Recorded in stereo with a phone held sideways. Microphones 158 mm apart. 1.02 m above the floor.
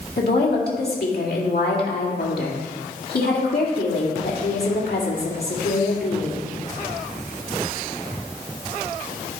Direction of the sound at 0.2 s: 80° left.